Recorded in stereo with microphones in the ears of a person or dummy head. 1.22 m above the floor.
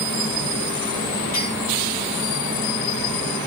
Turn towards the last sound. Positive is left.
turn(degrees=45)  # may be behind; listen again after turning